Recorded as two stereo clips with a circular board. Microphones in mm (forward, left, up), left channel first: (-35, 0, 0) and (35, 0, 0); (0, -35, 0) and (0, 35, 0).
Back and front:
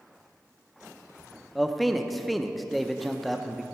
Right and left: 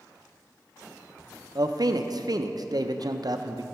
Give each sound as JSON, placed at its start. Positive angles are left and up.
{"t": 1.6, "sound": "a man speaking", "azimuth_deg": 90, "distance_m": 0.6}